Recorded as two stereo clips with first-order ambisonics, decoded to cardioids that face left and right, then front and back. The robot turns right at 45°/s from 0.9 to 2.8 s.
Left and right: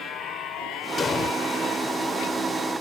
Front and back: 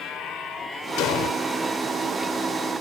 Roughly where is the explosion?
Ahead left.